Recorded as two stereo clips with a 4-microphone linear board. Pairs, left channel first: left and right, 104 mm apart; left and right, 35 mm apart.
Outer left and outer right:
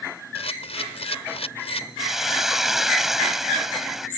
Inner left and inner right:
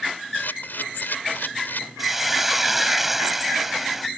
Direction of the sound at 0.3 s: 75° left (ahead or behind).